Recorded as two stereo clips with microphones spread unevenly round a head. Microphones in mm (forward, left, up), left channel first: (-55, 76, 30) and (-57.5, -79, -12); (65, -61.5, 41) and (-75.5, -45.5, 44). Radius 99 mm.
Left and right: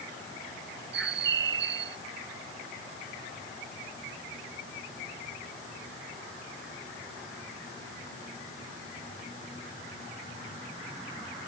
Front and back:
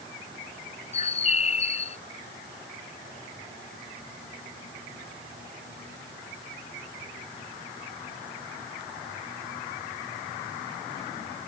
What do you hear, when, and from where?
0.9 s a bird: 50° right